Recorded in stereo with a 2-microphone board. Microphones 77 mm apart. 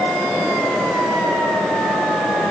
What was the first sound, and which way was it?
Only background noise.